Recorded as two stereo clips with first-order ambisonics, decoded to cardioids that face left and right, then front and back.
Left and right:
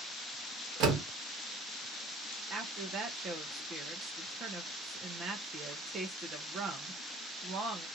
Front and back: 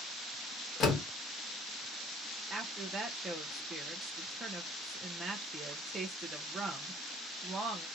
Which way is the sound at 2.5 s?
105° right.